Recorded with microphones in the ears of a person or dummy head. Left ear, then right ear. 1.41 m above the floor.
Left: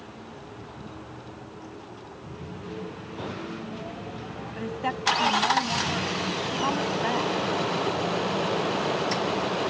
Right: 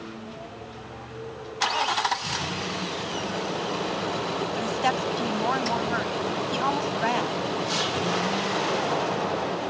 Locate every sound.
4.5 s a woman speaking: 60° right (ahead or behind)